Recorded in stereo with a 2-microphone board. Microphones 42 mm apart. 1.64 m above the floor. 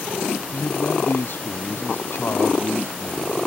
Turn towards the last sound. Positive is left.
turn(degrees=60)  # may be behind; listen again after turning